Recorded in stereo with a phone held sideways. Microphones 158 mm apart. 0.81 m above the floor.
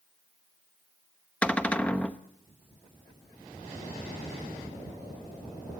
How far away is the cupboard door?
About 0.7 m.